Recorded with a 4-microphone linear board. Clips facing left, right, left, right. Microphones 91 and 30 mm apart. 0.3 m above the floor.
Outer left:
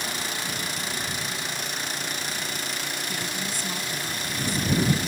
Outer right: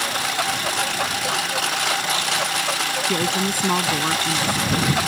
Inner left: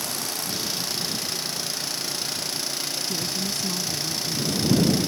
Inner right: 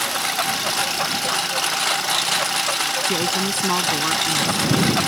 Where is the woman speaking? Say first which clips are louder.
Outer right 10 dB, inner right 7 dB; 70° right (ahead or behind).